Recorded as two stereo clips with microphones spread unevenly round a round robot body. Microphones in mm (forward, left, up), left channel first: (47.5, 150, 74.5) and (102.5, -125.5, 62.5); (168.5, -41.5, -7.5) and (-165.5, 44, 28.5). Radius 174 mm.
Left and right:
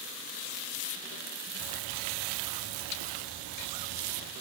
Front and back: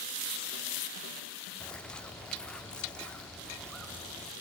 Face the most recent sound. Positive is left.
turn(degrees=-105)